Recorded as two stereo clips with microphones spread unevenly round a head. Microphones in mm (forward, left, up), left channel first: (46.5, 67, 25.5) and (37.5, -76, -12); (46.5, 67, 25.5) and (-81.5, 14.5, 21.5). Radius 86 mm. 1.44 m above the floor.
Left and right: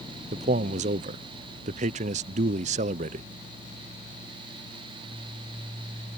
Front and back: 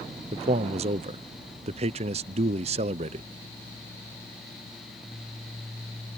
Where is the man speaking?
115° right.